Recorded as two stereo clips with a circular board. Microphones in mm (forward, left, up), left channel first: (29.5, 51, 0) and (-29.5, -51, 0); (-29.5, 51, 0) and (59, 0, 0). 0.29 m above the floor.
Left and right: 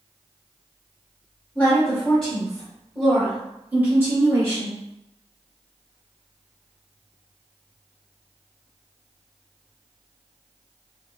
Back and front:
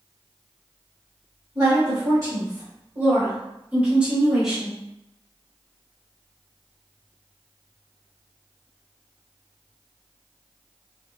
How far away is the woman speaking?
About 1.9 m.